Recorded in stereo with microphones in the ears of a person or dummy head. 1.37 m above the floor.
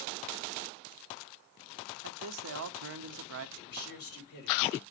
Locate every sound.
2.0 s a man speaking: 65° right (ahead or behind), 0.5 m
3.6 s a man speaking: 55° left (ahead or behind), 2.0 m